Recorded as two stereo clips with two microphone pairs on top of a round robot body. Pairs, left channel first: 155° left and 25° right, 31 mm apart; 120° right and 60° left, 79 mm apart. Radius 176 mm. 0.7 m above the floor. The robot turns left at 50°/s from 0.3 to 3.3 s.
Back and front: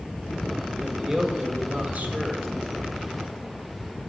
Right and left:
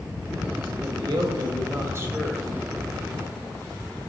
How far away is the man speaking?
About 1.4 m.